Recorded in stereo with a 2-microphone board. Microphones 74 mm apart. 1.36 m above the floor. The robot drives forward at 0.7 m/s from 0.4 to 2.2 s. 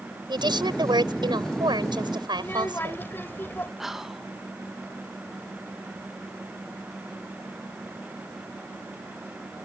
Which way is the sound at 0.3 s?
80° right.